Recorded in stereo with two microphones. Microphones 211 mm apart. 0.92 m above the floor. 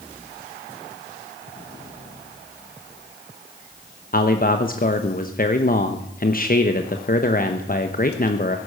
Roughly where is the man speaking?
Left.